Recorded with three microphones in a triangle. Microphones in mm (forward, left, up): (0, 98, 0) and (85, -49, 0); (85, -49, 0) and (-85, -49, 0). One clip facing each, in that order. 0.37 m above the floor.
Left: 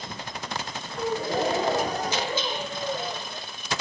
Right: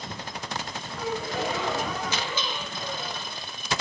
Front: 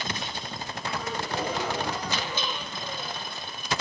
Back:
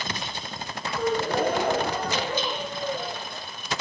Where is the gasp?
160° left, 1.3 m.